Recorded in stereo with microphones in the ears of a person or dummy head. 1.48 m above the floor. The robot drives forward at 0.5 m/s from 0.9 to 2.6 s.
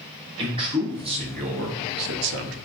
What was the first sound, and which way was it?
A man speaking, 30° right (ahead or behind).